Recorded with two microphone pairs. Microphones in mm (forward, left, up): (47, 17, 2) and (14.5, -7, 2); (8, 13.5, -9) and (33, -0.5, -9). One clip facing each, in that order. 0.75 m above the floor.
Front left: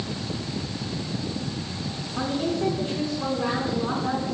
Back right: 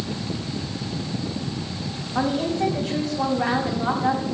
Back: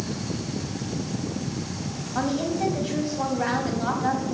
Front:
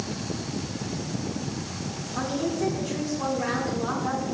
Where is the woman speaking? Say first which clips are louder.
Back right 4 dB, back 2 dB; 165° right, 4.5 m.